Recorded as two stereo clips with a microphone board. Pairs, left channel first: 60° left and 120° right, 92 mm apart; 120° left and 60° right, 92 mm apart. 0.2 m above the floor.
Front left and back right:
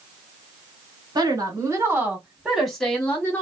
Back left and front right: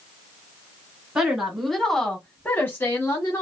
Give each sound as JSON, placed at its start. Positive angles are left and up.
{"t": 1.1, "sound": "a woman speaking", "azimuth_deg": -140, "distance_m": 1.4}